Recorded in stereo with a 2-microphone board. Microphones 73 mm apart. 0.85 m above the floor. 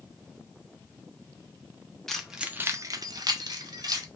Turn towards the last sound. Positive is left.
turn(degrees=-60)  # may be behind; listen again after turning